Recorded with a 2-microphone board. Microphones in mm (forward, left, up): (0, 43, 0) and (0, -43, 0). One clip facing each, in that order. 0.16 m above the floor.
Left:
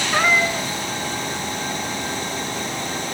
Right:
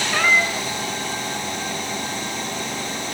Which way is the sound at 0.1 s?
20° left (ahead or behind).